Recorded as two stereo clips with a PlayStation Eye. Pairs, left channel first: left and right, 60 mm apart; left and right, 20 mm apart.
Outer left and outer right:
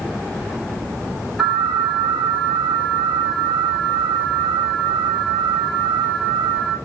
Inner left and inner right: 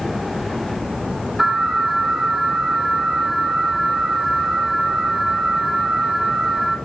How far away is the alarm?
About 4.5 m.